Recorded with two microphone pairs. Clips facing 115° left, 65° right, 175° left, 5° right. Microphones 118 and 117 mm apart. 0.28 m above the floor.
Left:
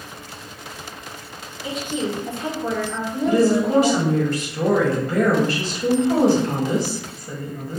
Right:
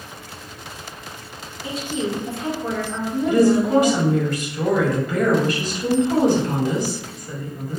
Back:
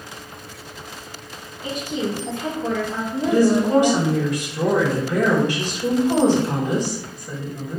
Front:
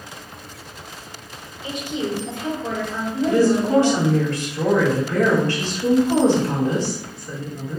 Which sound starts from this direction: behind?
A woman speaking, at 1.6 s.